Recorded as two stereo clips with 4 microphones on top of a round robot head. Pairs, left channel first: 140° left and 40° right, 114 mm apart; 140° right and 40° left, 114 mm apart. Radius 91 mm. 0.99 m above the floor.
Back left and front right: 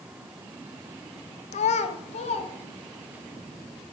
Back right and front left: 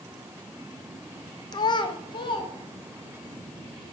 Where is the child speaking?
165° left, 0.5 m; by 3.2 s 175° left, 2 m.